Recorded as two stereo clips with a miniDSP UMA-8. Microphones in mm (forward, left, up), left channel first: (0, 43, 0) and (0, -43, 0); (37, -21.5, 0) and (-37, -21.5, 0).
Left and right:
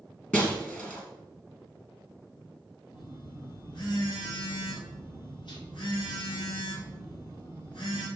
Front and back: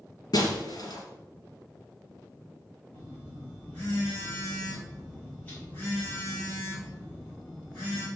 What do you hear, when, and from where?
0.3 s breaking glass: 20° left, 3 m
2.9 s a phone buzzing: 70° left, 3.5 m